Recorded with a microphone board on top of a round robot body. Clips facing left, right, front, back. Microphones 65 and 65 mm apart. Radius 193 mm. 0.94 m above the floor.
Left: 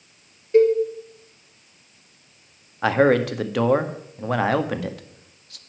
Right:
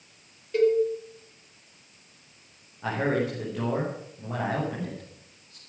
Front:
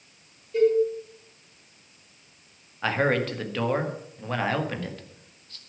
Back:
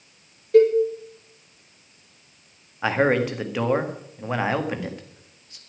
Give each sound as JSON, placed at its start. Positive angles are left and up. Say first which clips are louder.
{"t": 0.5, "sound": "a cowbell", "louder": "left 6 dB, back 6 dB", "azimuth_deg": 155, "distance_m": 3.5}
{"t": 2.8, "sound": "a man speaking", "louder": "left 9 dB, back 4 dB", "azimuth_deg": 105, "distance_m": 1.9}